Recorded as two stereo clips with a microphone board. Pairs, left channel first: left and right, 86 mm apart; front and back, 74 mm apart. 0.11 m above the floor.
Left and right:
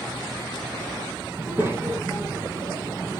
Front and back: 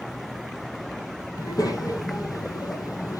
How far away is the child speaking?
About 2.5 m.